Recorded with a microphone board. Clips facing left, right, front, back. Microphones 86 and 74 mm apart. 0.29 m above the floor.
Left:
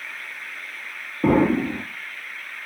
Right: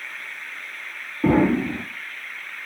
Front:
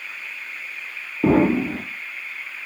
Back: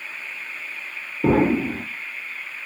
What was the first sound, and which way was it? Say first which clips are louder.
An explosion: even, front 1 dB; 15° left.